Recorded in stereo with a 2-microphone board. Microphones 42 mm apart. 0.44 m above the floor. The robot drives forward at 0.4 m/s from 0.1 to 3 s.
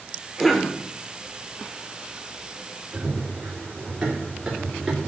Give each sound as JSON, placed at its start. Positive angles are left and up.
{"t": 0.4, "sound": "a cough", "side_deg": 5, "distance_m": 1.0}
{"t": 2.9, "sound": "running footsteps", "side_deg": -30, "distance_m": 4.0}